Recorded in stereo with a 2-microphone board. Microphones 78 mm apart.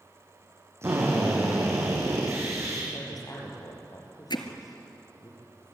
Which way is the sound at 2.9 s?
50° left (ahead or behind).